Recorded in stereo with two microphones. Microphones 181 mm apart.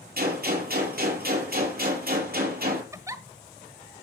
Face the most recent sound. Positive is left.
turn(degrees=-15)  # may be behind; listen again after turning